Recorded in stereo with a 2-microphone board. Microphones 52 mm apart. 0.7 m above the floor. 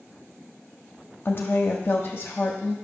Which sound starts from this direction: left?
A woman speaking, at 1.2 s.